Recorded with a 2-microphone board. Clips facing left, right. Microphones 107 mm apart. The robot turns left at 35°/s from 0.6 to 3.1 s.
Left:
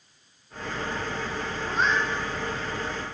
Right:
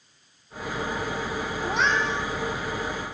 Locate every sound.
1.6 s a cat meowing: 80° right, 1.8 m